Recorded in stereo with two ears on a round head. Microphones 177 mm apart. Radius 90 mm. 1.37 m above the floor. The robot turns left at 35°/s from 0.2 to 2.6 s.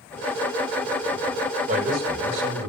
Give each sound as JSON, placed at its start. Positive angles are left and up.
{"t": 1.7, "sound": "a man speaking", "azimuth_deg": -35, "distance_m": 5.0}